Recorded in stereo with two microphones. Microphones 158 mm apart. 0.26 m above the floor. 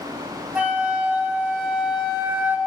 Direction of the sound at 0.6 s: 10° right (ahead or behind).